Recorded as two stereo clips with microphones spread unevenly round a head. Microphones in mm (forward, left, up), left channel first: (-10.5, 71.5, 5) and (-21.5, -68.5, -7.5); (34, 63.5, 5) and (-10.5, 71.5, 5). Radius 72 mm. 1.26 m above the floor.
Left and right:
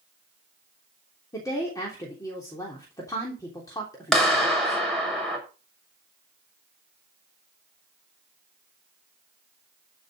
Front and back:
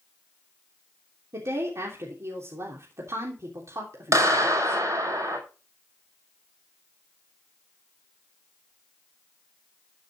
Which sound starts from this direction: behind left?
A woman speaking, at 1.3 s.